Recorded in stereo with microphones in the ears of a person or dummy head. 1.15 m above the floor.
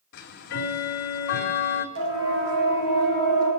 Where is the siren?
60° right (ahead or behind), 6.5 m.